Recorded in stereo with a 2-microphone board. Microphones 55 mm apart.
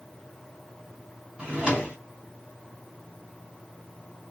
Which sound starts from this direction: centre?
A drawer, at 1.4 s.